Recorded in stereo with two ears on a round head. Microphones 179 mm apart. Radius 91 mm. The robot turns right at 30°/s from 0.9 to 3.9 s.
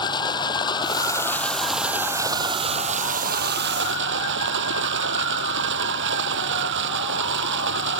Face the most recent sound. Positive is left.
turn(degrees=-115)